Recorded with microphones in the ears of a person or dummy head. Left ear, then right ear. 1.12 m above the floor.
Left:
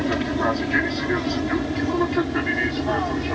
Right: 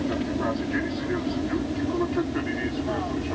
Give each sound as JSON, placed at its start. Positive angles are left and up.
{"t": 0.0, "sound": "an aircraft", "side_deg": 60}